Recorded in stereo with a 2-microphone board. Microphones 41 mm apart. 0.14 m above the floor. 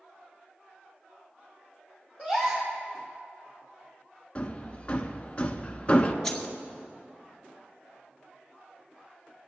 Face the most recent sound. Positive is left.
turn(degrees=10)  # may be behind; listen again after turning